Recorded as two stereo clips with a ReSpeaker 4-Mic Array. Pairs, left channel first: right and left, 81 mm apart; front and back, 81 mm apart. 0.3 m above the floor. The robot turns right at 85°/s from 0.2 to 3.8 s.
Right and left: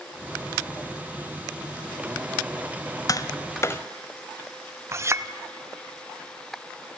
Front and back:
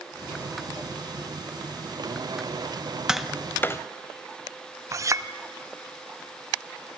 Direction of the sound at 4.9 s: 140° left.